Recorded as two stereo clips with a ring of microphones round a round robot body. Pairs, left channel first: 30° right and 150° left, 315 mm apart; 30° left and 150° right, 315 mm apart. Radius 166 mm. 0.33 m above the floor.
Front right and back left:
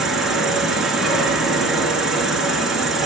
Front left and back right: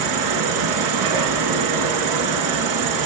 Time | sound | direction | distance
0.0 | an insect | 120° right | 1.6 m